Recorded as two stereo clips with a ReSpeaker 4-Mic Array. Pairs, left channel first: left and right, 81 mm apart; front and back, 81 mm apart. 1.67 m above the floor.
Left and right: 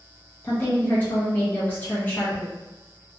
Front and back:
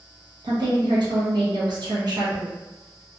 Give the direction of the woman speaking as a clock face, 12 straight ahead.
7 o'clock.